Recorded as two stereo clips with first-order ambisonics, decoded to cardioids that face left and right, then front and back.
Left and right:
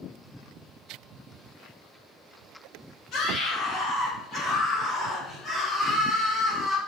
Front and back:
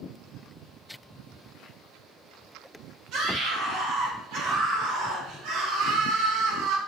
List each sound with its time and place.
3.1 s a scream: 145° left, 4 m; by 6.8 s 170° left, 2.5 m